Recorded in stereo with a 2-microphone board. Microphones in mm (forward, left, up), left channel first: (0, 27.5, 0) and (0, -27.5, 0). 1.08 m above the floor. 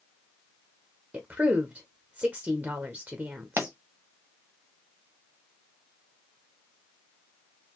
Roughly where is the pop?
Right.